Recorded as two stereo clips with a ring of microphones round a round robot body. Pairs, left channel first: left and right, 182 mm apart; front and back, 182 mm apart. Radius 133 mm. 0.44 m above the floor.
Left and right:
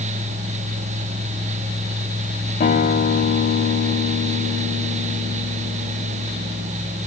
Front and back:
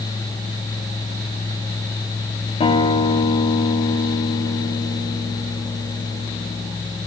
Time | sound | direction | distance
2.6 | a guitar | 50° left | 3 m